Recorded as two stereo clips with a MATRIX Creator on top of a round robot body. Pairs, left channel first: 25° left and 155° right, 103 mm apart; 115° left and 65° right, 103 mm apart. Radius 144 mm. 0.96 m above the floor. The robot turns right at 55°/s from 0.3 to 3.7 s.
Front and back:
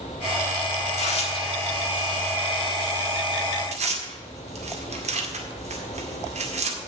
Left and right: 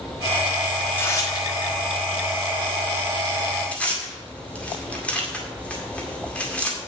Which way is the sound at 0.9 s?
35° left.